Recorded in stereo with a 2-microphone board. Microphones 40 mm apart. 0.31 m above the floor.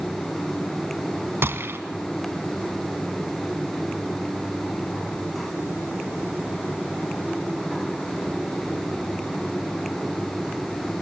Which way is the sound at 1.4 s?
65° right (ahead or behind).